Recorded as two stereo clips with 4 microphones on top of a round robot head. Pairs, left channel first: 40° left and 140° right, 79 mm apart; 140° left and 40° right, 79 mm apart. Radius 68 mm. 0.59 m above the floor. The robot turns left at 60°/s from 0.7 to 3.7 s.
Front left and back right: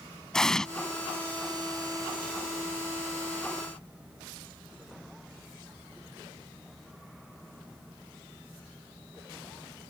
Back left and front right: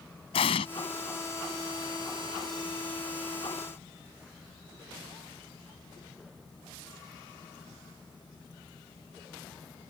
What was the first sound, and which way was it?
An explosion, 125° left.